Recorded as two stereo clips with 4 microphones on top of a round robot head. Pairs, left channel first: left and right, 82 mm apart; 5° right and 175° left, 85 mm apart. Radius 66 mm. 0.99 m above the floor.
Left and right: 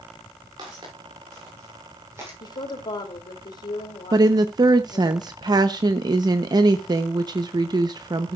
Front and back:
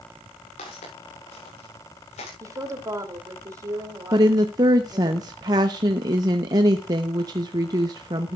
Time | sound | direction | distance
0.6 | footsteps | 35° right | 7 m
2.4 | a woman speaking | 125° left | 2.5 m
4.1 | a woman speaking | 130° right | 0.8 m